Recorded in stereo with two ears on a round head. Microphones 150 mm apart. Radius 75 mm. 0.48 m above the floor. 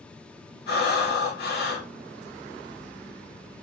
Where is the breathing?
65° left (ahead or behind), 1.6 m.